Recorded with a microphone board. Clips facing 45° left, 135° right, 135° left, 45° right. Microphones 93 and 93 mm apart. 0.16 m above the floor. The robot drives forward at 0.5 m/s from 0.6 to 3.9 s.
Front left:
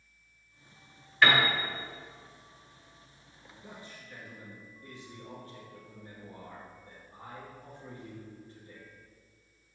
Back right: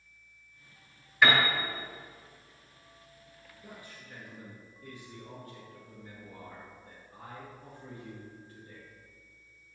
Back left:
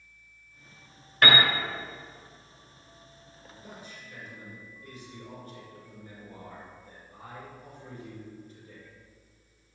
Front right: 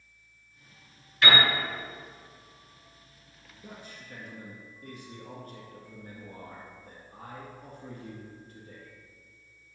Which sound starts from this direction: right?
A man speaking, at 3.6 s.